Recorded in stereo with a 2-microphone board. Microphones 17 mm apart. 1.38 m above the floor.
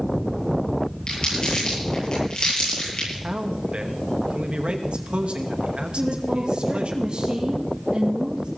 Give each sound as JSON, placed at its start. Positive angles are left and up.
{"t": 1.1, "sound": "crumpling", "side_deg": 50, "distance_m": 9.5}
{"t": 3.2, "sound": "a man speaking", "side_deg": -85, "distance_m": 2.0}
{"t": 6.0, "sound": "a woman speaking", "side_deg": -70, "distance_m": 2.0}